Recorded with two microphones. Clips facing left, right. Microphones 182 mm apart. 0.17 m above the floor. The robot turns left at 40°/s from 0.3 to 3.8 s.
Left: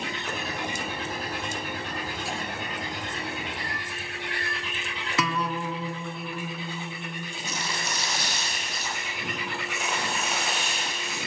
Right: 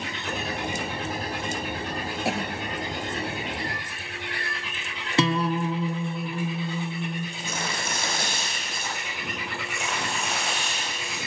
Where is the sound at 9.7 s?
5° left (ahead or behind), 7.5 m.